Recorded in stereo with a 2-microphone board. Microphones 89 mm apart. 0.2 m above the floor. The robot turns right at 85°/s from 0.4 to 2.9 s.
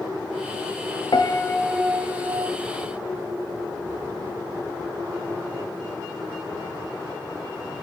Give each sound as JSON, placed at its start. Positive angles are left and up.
{"t": 1.1, "sound": "a piano", "azimuth_deg": 120, "distance_m": 0.5}